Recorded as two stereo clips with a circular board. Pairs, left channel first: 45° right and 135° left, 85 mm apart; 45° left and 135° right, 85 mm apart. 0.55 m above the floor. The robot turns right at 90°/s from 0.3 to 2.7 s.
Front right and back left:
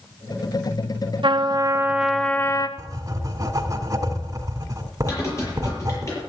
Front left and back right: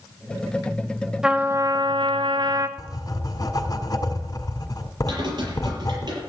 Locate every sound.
1.2 s a trumpet: 145° left, 1.1 m; by 2.7 s 85° right, 1.1 m
2.8 s writing: 90° left, 1.7 m
5.1 s typing on a keyboard: 100° right, 7.5 m